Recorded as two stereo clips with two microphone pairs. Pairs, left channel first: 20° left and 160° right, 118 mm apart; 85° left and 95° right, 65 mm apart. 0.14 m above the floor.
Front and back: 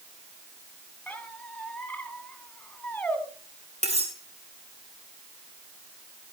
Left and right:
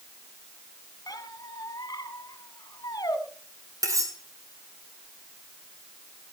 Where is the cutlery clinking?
130° right, 3 m.